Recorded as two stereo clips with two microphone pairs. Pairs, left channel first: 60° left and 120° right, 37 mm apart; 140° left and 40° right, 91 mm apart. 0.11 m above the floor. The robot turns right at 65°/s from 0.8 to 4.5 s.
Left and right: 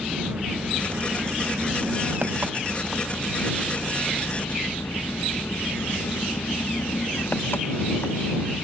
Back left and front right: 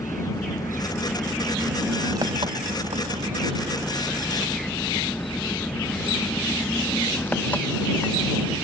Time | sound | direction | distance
0.0 | an engine running | 170° right | ?